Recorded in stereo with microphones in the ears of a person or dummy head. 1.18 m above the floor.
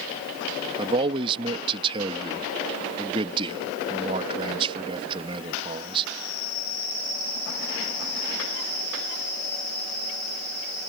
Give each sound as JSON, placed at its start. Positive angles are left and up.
{"t": 0.8, "sound": "a man speaking", "side_deg": -25}